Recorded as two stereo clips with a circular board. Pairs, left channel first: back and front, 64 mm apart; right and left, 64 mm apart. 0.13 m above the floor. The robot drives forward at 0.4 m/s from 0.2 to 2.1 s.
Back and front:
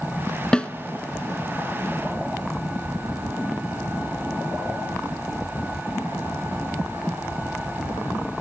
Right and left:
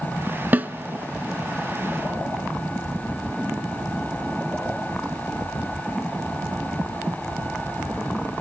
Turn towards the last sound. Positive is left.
turn(degrees=160)